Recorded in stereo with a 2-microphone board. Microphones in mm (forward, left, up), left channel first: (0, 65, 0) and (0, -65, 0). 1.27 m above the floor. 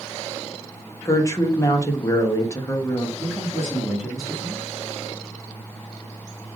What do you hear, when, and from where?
1.1 s a woman speaking: 25° left (ahead or behind), 0.7 m
3.2 s a man speaking: 5° right (ahead or behind), 1.1 m